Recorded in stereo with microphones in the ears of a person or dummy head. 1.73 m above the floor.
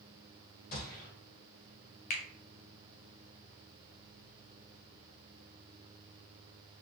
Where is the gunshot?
45° left (ahead or behind), 2.5 m.